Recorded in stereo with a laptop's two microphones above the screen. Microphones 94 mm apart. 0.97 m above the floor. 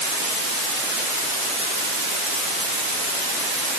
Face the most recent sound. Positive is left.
No sound to turn to.